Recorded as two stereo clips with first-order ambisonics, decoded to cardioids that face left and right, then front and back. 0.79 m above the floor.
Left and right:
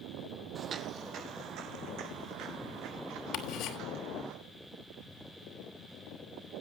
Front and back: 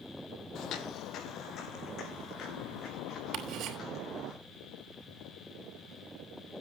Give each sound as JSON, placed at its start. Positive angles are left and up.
{"t": 0.6, "sound": "footsteps", "azimuth_deg": -30, "distance_m": 1.2}
{"t": 3.3, "sound": "ticking", "azimuth_deg": 130, "distance_m": 4.0}